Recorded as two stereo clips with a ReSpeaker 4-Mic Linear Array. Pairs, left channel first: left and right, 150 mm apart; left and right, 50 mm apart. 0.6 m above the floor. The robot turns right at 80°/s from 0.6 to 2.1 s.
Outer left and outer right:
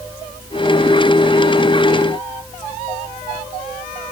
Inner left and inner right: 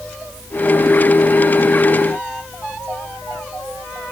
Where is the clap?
No clap in this recording.